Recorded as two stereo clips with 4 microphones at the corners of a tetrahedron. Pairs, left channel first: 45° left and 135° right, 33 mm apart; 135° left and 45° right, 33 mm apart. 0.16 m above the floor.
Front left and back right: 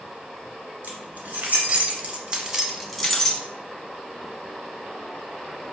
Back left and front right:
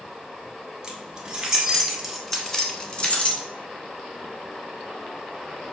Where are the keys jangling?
110° right, 1.5 m; by 3.4 s 110° left, 0.9 m.